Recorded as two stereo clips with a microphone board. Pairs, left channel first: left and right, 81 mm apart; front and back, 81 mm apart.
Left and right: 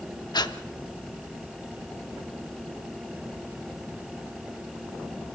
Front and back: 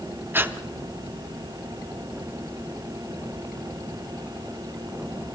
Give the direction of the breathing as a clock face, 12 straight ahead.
8 o'clock.